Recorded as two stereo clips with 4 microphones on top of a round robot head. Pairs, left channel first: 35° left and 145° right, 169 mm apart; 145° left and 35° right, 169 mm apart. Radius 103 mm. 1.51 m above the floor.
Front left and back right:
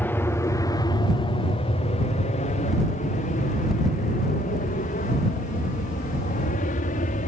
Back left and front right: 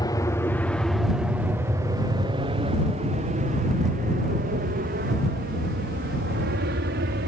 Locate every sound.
0.0 s an aircraft: 105° left; by 7.3 s 10° right